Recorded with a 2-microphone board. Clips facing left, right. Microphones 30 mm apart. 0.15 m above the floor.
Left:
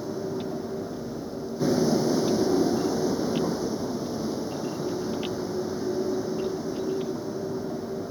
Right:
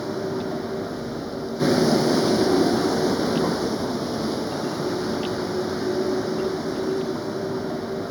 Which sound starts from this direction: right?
A vehicle, at 0.0 s.